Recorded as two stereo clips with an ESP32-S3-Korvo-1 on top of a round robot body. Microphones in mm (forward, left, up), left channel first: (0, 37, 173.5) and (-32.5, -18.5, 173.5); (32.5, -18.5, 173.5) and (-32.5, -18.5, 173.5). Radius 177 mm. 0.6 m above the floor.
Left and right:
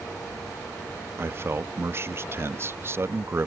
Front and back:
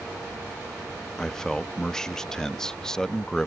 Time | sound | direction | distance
1.2 | a man speaking | 80° right | ?